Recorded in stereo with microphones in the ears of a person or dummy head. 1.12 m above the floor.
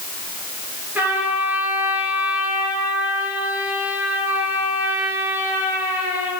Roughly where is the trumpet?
Centre.